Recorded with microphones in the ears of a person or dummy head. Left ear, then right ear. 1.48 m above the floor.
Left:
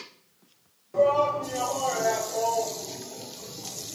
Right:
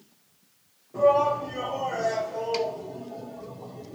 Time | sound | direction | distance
0.9 | a shout | 60° left (ahead or behind) | 1.2 m